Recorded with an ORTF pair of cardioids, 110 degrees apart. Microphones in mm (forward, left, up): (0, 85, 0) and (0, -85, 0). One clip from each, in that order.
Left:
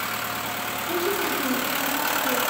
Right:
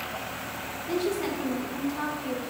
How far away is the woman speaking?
About 5 m.